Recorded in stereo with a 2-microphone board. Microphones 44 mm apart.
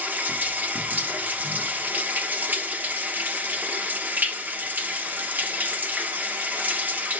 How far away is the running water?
About 1.0 m.